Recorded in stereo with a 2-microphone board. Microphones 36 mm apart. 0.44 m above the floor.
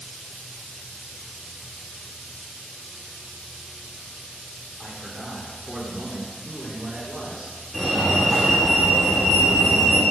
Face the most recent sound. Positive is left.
turn(degrees=0)  # may be behind; listen again after turning